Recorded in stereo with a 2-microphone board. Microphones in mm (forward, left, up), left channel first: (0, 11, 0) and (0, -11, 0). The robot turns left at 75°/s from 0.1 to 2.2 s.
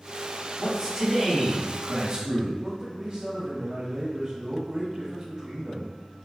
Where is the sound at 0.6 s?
Straight ahead, 1.3 m; by 2.5 s 120° right, 1.3 m.